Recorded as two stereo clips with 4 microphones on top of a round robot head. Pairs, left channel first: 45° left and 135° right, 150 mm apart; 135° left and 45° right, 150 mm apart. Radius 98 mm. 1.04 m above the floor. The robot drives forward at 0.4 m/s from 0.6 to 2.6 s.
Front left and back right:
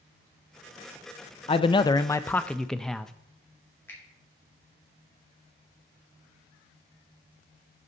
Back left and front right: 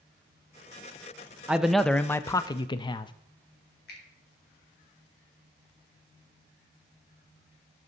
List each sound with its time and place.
1.5 s a man speaking: 35° left, 0.6 m; by 3.1 s 125° left, 0.6 m
3.9 s a finger snap: 120° left, 3 m